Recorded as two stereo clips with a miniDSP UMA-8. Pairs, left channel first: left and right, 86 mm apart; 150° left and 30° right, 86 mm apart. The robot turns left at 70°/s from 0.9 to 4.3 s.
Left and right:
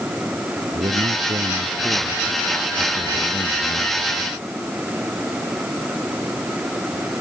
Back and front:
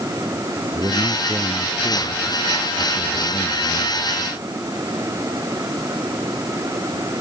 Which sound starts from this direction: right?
A man speaking, at 0.7 s.